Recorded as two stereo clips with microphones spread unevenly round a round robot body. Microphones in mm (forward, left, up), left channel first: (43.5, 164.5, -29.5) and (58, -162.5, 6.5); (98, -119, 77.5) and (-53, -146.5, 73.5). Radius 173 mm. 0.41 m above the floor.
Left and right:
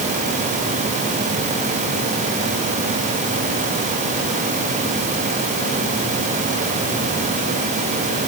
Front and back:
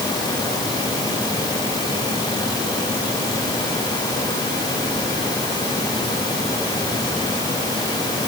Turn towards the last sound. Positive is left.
No sound to turn to.